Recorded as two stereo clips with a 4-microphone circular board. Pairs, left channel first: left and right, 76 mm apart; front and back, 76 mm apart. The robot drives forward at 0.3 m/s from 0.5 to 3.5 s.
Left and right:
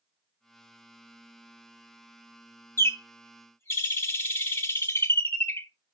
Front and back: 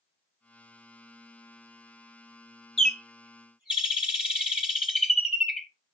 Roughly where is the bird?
Left.